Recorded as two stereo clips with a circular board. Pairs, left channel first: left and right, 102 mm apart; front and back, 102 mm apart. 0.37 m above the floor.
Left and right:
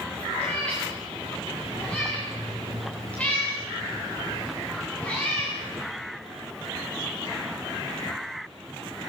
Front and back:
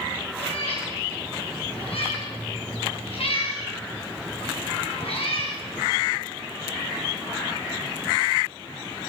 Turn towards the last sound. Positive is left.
turn(degrees=15)